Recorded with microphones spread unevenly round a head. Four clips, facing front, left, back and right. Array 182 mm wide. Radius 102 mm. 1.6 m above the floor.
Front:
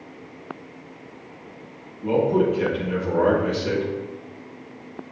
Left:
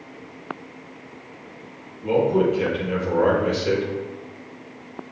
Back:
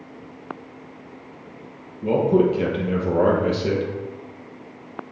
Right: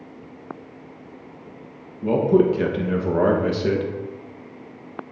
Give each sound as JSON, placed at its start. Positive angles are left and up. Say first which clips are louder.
{"t": 2.0, "sound": "a man speaking", "louder": "right 2 dB, back 2 dB", "azimuth_deg": -140, "distance_m": 1.3}